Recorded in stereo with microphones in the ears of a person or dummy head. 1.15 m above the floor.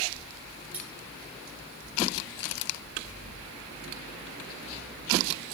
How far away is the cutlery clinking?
About 5 m.